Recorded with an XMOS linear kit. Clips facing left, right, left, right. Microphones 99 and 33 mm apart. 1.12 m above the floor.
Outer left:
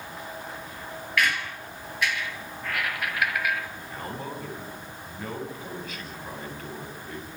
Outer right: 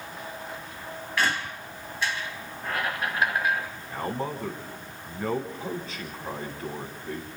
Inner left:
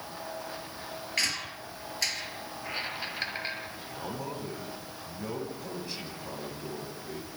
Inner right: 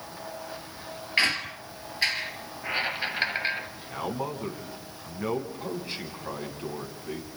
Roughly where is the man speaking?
Right.